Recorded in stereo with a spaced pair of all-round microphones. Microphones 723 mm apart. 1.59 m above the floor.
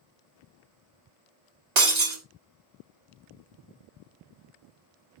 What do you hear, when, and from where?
1.8 s breaking glass: 65° right (ahead or behind), 2 m